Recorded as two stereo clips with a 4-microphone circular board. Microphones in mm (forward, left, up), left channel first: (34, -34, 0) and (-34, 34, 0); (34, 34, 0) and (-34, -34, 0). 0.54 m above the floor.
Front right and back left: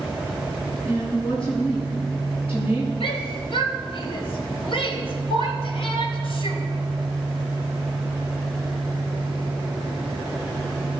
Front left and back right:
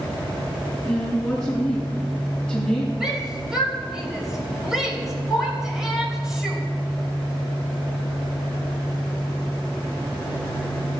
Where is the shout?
50° right, 3 m.